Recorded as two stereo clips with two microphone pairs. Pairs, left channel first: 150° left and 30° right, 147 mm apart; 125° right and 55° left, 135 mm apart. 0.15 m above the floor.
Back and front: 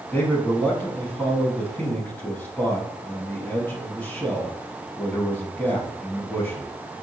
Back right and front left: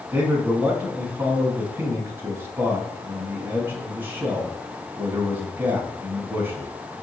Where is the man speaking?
100° left, 1.1 m.